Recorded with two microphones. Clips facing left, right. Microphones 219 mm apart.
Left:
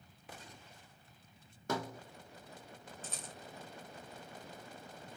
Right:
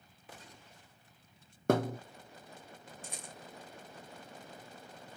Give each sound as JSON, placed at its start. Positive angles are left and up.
{"t": 1.7, "sound": "a thud", "side_deg": -60, "distance_m": 0.9}
{"t": 3.0, "sound": "a rattle", "side_deg": -15, "distance_m": 1.5}